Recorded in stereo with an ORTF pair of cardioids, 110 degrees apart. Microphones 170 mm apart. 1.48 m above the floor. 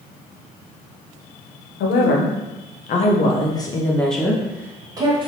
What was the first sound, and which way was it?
A woman speaking, 65° left.